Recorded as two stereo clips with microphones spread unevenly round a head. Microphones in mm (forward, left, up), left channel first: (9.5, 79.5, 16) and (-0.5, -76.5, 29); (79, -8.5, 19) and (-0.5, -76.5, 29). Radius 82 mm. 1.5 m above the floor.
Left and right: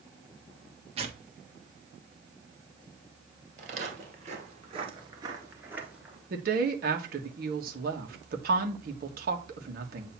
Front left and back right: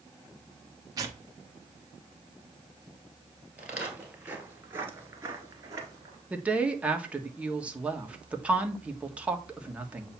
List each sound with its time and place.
1.0 s tearing paper: 115° right, 1.1 m
3.6 s footsteps: 65° right, 2.5 m; by 6.2 s 175° right, 1.8 m
6.3 s a woman speaking: 65° right, 1.6 m